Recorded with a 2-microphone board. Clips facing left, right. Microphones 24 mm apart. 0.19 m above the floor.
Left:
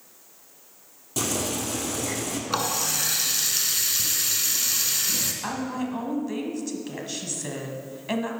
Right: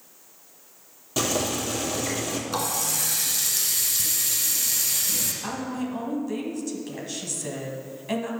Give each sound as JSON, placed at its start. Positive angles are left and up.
{"t": 1.2, "sound": "boiling", "side_deg": -20, "distance_m": 2.5}
{"t": 2.5, "sound": "a running tap", "side_deg": 30, "distance_m": 1.2}
{"t": 5.4, "sound": "a woman speaking", "side_deg": 15, "distance_m": 1.2}